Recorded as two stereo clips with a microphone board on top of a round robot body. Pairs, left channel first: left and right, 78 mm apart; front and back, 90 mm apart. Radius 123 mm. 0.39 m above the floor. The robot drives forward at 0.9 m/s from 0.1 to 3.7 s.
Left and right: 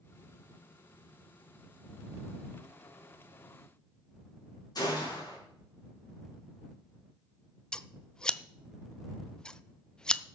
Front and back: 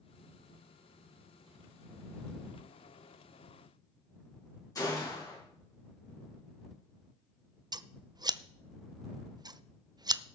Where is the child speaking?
I don't hear a child speaking.